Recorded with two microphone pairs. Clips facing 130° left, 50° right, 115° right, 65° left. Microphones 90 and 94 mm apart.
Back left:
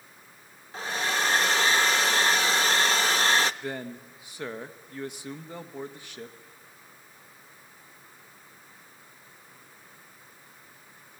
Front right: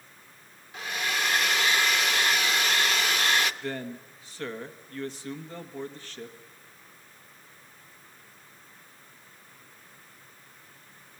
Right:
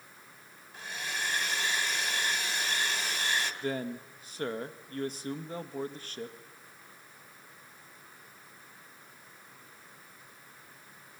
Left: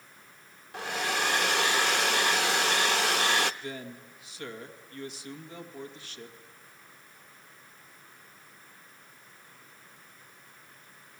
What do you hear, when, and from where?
0.7 s a hair dryer: 70° left, 0.6 m
3.6 s a man speaking: 155° right, 1.3 m